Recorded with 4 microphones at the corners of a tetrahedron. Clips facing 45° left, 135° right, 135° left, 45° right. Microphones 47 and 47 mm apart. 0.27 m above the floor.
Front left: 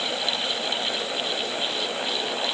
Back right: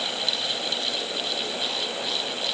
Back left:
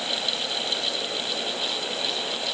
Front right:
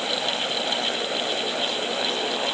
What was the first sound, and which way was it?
Only background noise.